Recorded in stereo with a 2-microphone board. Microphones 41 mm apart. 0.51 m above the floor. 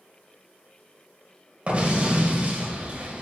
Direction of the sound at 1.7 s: 35° right (ahead or behind).